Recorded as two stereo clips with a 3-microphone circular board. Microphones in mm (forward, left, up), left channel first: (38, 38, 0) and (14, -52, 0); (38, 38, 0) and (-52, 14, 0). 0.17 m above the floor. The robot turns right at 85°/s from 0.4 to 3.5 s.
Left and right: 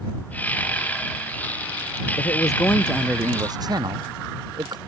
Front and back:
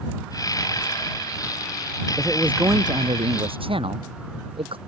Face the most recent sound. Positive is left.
turn(degrees=-150)